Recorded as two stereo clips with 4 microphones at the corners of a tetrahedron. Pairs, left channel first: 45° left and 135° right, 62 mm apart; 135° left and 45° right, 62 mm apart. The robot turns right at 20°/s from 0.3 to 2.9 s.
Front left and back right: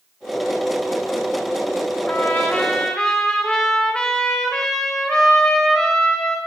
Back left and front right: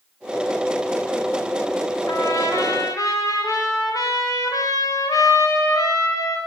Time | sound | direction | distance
2.1 | a trumpet | 105° left | 7.5 m